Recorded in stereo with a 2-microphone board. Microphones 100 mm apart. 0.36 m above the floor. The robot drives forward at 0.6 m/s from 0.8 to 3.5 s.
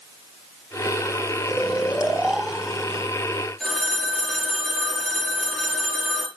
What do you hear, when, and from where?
1.5 s snoring: 10° right (ahead or behind), 0.8 m; by 3.1 s 5° right (ahead or behind), 1.7 m
3.6 s a phone ringing: 5° left (ahead or behind), 4.5 m